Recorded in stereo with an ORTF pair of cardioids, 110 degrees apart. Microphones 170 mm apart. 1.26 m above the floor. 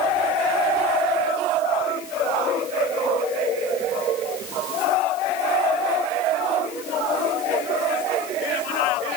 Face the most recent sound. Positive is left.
No sound to turn to.